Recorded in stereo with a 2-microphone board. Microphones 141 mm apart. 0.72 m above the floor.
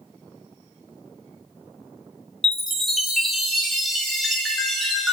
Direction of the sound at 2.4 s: Centre (ahead or behind).